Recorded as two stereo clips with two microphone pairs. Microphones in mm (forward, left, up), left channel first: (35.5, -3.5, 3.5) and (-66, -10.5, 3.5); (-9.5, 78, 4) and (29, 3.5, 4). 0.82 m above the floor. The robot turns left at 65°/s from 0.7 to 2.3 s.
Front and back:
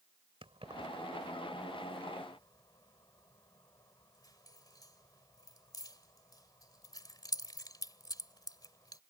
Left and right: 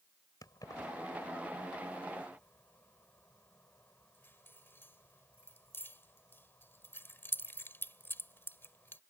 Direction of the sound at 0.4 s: 160° left.